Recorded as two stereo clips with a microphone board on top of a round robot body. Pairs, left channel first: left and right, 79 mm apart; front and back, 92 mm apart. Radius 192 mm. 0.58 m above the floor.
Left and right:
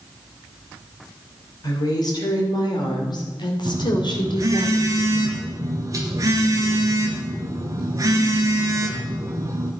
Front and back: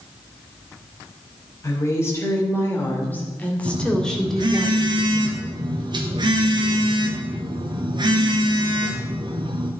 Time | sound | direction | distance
1.6 | a woman speaking | 60° left | 3.5 m
3.6 | a phone buzzing | 140° right | 0.8 m